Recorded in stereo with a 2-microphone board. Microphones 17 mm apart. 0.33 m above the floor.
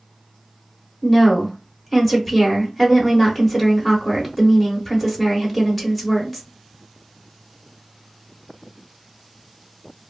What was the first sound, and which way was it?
A woman speaking, 15° left (ahead or behind).